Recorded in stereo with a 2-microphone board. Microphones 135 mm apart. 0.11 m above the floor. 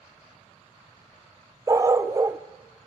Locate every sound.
1.7 s a dog barking: 25° right (ahead or behind), 1.0 m